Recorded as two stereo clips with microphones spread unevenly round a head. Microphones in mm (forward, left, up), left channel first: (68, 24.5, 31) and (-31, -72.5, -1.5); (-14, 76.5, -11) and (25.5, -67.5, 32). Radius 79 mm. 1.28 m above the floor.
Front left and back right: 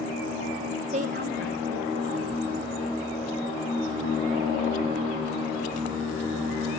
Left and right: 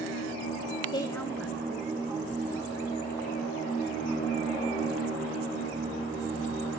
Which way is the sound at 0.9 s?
170° left.